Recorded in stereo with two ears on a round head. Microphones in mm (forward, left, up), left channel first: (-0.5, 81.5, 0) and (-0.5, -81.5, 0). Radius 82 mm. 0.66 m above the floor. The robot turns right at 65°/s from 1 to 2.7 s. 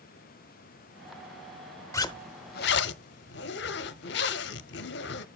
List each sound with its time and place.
1.9 s a zipper: 15° left, 0.7 m; by 5.2 s 65° left, 0.7 m